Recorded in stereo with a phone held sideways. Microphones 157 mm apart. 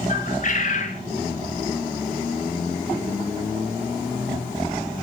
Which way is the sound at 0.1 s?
55° left (ahead or behind).